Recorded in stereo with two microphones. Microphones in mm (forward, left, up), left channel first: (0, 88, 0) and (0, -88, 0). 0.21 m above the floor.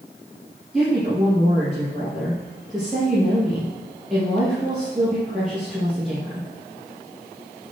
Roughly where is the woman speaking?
Centre.